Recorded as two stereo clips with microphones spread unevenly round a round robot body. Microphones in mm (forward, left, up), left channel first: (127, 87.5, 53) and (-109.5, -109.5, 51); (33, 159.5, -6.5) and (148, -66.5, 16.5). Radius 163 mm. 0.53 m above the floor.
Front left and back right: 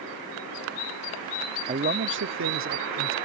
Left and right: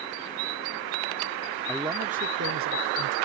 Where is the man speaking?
170° right; by 3.1 s 95° right.